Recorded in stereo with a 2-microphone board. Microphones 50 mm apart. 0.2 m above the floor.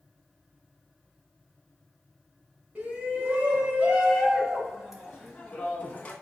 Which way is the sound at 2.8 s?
35° right (ahead or behind).